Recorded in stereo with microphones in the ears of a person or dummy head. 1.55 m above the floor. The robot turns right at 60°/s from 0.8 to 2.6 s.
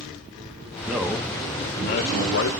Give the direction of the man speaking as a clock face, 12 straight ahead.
12 o'clock.